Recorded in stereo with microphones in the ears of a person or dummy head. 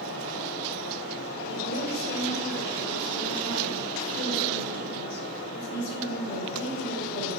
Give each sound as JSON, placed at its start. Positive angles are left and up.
{"t": 0.0, "sound": "a fan", "side_deg": 65, "distance_m": 1.7}
{"t": 1.5, "sound": "a woman speaking", "side_deg": 60, "distance_m": 2.5}